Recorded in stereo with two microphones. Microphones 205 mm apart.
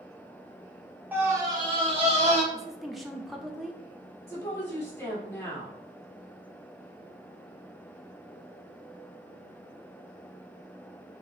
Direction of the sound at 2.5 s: Centre (ahead or behind).